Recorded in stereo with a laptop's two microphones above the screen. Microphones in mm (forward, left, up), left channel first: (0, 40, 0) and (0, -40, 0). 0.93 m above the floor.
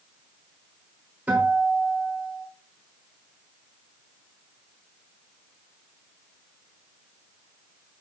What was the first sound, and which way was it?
A guitar, 20° right (ahead or behind).